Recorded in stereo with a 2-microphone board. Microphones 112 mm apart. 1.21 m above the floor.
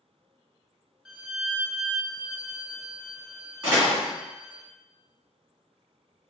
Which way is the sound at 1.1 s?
Centre (ahead or behind).